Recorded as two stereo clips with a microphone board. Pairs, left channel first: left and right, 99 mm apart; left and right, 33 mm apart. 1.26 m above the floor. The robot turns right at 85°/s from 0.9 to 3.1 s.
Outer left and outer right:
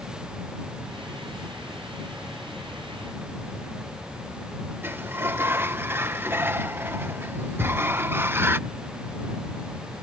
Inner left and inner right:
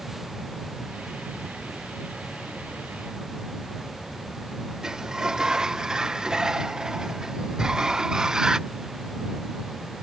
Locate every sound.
4.8 s a sliding door: 25° right (ahead or behind)
7.6 s a thud: centre (ahead or behind)